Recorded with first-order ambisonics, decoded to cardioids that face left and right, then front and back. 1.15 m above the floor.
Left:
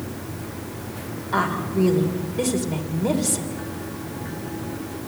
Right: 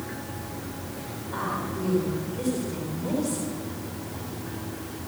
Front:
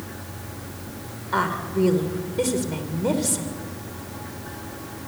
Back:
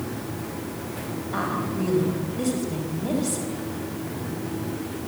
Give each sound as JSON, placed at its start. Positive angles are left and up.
{"t": 1.3, "sound": "a woman speaking", "azimuth_deg": 35, "distance_m": 3.0}